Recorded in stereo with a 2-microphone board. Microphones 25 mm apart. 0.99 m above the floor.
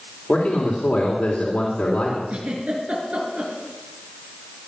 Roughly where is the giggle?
Right.